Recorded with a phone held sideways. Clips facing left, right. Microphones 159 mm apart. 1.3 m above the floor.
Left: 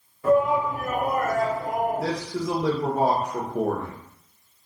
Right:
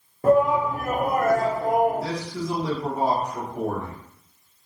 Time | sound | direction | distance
0.2 | a shout | 45° right (ahead or behind) | 0.8 m
2.0 | a man speaking | 70° left (ahead or behind) | 1.1 m